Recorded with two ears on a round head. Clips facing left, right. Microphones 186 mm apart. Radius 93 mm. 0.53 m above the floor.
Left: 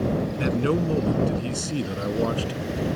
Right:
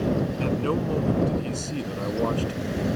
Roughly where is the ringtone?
No ringtone in this recording.